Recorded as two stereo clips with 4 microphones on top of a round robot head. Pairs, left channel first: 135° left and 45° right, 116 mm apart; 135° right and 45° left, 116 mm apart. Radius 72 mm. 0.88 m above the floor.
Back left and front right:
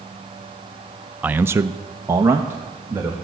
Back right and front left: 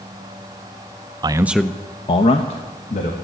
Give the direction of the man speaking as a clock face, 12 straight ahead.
11 o'clock.